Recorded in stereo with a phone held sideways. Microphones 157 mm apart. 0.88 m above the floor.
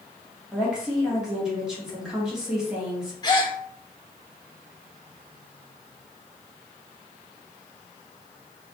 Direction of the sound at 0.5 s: 5° right (ahead or behind).